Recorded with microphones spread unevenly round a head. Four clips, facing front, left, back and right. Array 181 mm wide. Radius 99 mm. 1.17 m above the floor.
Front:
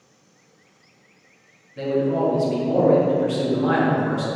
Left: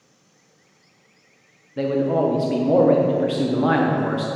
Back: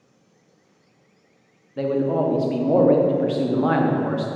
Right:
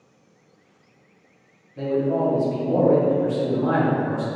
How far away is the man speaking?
About 0.6 m.